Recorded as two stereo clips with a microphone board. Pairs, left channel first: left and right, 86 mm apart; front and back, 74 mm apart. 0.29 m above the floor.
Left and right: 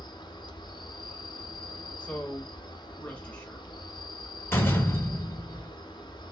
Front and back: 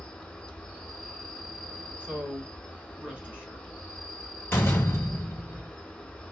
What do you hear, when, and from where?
0.0 s an insect: 75° left, 0.9 m
2.0 s a man speaking: 140° left, 1.0 m
4.5 s a door slam: 40° left, 0.9 m